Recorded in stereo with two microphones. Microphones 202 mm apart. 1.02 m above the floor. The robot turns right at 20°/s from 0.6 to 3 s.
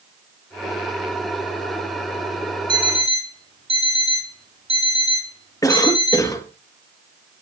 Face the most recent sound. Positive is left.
turn(degrees=15)  # may be behind; listen again after turning